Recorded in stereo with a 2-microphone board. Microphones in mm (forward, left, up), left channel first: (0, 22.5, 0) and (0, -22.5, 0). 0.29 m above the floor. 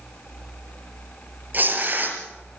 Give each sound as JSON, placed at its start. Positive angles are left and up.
{"t": 1.5, "sound": "tearing paper", "side_deg": -40, "distance_m": 5.0}